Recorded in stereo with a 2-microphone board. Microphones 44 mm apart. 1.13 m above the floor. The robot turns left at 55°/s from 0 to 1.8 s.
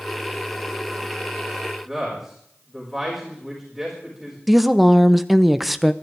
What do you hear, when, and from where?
1.9 s a man speaking: 5° right (ahead or behind), 5 m
4.5 s a woman speaking: centre (ahead or behind), 0.8 m